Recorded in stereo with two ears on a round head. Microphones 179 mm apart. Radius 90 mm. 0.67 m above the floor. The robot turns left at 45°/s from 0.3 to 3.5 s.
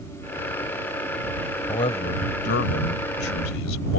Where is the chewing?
No chewing in this recording.